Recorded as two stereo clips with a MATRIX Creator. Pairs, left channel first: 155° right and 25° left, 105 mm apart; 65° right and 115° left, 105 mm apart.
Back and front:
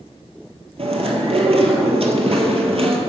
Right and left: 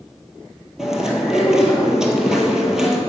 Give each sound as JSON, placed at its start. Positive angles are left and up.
{"t": 0.8, "sound": "chewing", "azimuth_deg": 30, "distance_m": 1.3}